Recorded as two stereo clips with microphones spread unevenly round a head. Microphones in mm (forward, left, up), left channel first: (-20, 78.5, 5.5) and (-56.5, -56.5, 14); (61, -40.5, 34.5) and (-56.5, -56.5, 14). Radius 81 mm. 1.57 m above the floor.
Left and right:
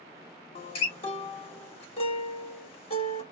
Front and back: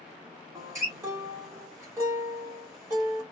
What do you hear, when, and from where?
0.6 s a guitar: 110° left, 1.3 m